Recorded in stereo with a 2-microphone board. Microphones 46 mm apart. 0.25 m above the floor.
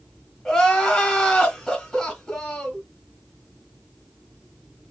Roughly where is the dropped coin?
No dropped coin in this recording.